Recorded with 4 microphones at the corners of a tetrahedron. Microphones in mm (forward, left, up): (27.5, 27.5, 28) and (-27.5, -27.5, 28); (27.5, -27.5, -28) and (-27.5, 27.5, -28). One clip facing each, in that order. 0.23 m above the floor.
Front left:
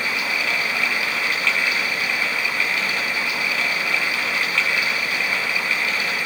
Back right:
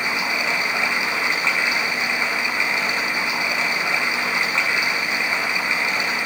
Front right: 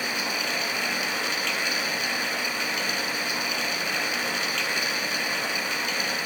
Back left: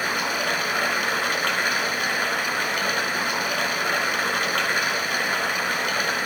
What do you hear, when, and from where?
0.0 s running water: 160° left, 1.1 m